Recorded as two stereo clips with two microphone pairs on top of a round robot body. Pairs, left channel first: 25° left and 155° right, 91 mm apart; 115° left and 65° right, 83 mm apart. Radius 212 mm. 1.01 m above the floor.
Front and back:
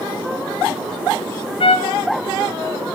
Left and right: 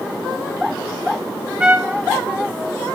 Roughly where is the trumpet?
Ahead.